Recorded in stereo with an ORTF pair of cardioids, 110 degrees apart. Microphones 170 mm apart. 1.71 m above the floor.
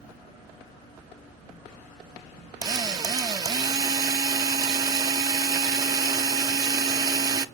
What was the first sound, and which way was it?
A drill, 25° right.